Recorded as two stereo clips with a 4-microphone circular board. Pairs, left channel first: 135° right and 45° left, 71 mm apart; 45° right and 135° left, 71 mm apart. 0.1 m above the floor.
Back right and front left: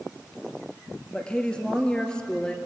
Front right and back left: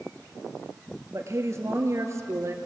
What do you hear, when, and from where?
1.1 s a woman speaking: 150° left, 1.9 m